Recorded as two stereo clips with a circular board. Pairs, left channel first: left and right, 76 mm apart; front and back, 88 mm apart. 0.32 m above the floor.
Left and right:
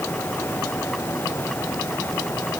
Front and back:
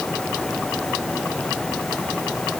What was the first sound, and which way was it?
Only background noise.